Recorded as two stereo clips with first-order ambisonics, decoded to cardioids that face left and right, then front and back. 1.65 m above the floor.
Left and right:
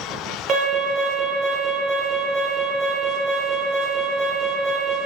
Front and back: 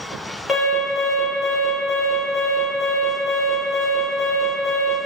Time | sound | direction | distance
0.5 | an alarm | 70° right | 0.9 m